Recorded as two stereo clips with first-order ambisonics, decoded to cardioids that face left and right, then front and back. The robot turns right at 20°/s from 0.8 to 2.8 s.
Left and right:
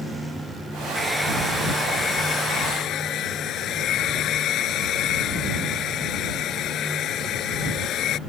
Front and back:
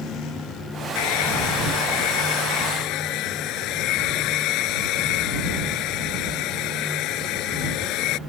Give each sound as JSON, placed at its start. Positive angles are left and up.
{"t": 0.9, "sound": "a hair dryer", "azimuth_deg": 0}